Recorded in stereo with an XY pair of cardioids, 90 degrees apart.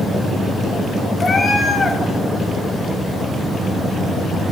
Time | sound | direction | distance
1.2 | a cat meowing | 35° left | 1.0 m